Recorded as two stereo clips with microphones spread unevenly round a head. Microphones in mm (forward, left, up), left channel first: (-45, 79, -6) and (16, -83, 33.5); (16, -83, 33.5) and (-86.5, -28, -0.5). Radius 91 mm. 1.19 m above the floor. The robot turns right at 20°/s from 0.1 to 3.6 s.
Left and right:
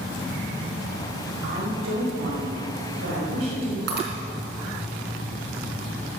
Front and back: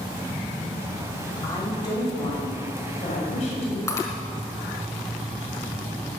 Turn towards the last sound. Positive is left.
turn(degrees=-85)